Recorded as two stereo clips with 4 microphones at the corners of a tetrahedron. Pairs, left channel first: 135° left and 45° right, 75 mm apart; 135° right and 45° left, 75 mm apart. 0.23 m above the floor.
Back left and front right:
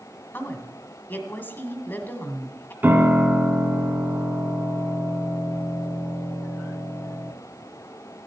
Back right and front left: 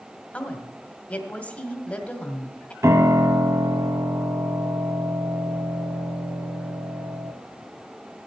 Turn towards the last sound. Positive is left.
turn(degrees=10)